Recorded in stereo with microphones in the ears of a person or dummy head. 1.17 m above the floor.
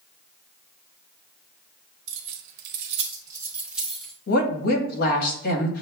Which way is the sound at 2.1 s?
70° right (ahead or behind).